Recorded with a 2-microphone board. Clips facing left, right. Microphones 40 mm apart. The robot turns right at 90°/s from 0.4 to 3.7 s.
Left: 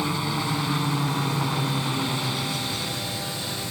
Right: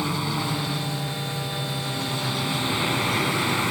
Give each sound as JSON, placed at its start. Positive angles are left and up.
{"t": 0.0, "sound": "a helicopter", "azimuth_deg": 0}